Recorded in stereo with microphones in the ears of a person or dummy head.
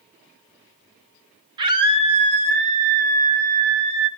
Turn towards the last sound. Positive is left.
turn(degrees=-65)  # may be behind; listen again after turning